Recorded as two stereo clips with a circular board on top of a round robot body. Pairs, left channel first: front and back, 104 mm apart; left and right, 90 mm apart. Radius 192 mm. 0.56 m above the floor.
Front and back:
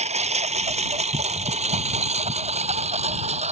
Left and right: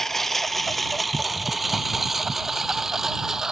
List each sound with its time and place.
0.0 s a lawn mower: 175° left; by 3.5 s 175° right